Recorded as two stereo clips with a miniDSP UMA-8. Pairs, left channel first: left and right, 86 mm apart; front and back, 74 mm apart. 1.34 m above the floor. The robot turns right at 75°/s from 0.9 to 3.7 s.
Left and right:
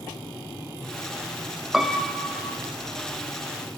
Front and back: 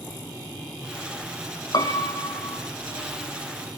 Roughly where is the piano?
Ahead.